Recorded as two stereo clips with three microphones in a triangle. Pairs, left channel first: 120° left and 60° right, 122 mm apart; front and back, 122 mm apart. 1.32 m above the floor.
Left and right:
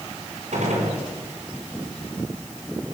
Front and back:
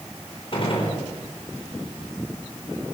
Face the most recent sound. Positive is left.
turn(degrees=-45)